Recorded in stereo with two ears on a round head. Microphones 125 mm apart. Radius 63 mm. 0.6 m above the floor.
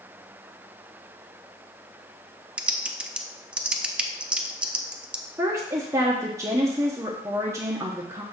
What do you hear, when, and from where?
2.6 s typing on a keyboard: 5° right (ahead or behind), 0.6 m
5.4 s a woman speaking: 20° right (ahead or behind), 0.9 m